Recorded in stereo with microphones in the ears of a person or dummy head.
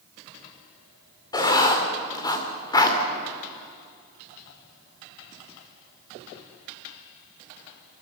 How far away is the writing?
About 2.5 m.